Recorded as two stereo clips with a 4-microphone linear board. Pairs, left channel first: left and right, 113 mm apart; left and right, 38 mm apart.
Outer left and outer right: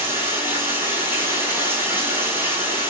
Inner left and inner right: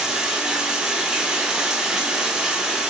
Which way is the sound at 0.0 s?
20° right (ahead or behind).